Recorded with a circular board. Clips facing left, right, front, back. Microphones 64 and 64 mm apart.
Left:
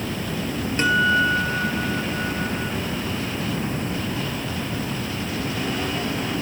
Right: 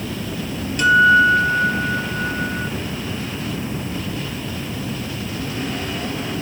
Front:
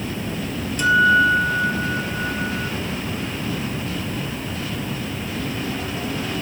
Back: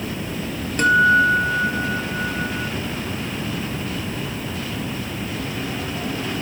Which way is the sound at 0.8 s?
145° left.